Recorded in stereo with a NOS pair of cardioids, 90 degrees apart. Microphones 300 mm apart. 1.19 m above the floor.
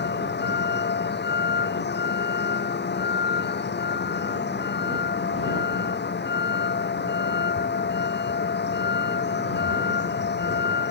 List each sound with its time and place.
0.0 s a vehicle: 35° left